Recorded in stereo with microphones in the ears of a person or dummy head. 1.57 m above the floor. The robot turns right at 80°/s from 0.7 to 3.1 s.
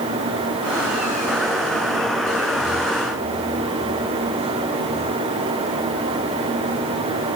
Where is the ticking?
I don't hear ticking.